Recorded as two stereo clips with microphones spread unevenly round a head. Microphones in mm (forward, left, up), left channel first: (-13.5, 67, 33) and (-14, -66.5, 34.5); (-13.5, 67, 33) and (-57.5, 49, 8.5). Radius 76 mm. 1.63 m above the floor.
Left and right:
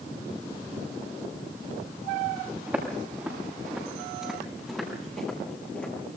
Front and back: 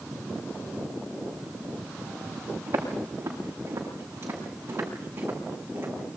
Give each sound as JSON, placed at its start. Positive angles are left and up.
{"t": 2.7, "sound": "footsteps", "azimuth_deg": -165, "distance_m": 9.0}